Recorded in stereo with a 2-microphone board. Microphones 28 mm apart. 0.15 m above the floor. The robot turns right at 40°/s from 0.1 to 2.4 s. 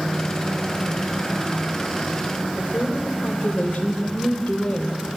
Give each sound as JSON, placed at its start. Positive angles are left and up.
{"t": 2.6, "sound": "a woman speaking", "side_deg": 70, "distance_m": 3.5}